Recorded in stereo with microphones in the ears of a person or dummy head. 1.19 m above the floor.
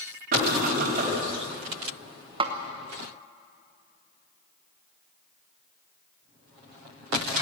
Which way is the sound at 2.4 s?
25° right (ahead or behind).